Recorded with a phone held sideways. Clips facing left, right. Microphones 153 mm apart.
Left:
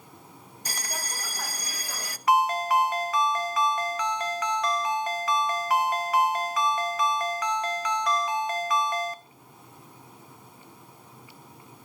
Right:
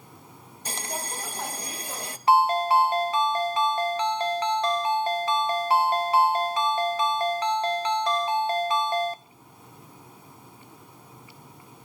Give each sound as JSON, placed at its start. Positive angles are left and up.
{"t": 0.7, "sound": "a bell", "side_deg": -25, "distance_m": 0.5}
{"t": 2.3, "sound": "a ringtone", "side_deg": -30, "distance_m": 0.9}